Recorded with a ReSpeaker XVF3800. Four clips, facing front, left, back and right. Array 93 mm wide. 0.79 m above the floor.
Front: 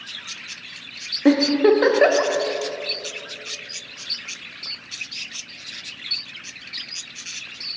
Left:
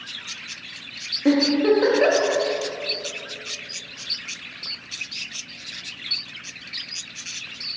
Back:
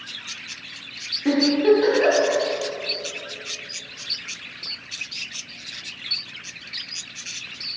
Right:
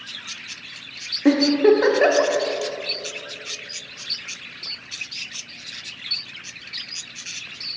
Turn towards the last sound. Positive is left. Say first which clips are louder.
# right 3 dB, front 2 dB
turn(degrees=-20)